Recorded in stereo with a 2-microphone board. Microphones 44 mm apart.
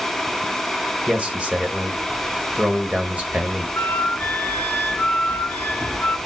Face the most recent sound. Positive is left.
turn(degrees=55)  # may be behind; listen again after turning